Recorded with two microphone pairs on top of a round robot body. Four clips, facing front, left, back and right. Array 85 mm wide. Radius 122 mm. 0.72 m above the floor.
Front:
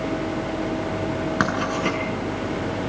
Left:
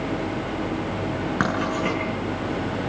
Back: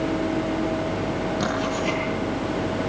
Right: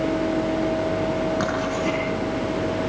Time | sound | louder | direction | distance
1.4 | writing | even, front 4 dB | 30° left | 6.5 m